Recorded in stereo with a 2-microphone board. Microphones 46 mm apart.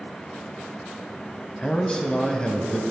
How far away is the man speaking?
About 1.0 m.